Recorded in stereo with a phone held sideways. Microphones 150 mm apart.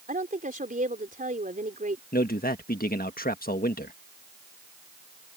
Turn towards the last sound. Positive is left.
turn(degrees=70)  # may be behind; listen again after turning